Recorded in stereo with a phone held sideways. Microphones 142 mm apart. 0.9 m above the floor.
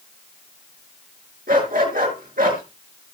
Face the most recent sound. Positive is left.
turn(degrees=-85)